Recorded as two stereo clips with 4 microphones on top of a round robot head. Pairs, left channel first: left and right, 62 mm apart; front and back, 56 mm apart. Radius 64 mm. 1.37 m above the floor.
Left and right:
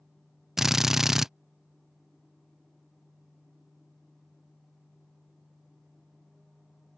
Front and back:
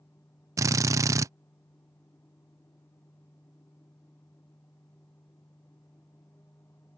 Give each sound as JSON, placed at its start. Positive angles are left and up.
{"t": 0.6, "sound": "a drill", "azimuth_deg": -175}